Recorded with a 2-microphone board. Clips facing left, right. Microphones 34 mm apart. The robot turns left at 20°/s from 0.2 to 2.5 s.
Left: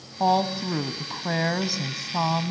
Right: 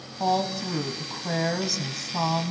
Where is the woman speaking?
25° left (ahead or behind), 1.2 m; by 2.5 s 15° left (ahead or behind), 1.2 m.